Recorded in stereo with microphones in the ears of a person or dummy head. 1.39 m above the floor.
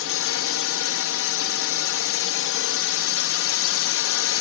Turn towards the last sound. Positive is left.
turn(degrees=60)  # may be behind; listen again after turning